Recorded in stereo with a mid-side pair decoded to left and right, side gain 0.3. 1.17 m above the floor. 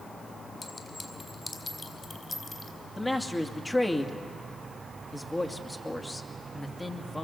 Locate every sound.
0.6 s a clink: 30° left, 4 m
3.0 s a man speaking: 20° left, 2.5 m